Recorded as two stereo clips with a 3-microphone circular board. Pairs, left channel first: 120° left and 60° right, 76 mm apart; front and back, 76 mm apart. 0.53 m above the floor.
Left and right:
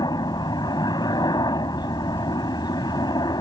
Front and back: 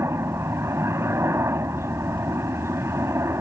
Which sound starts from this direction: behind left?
A helicopter, at 0.0 s.